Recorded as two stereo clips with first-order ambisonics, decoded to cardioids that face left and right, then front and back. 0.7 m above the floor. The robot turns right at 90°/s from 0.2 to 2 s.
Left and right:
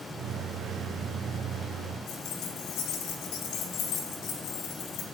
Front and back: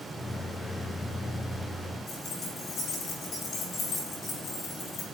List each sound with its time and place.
2.1 s keys jangling: 60° left, 1.8 m